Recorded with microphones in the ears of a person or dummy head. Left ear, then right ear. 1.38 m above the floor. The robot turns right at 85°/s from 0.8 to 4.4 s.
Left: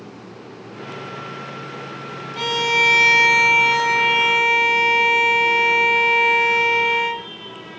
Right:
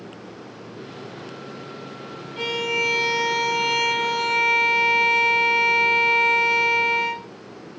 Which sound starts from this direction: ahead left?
A violin, at 2.4 s.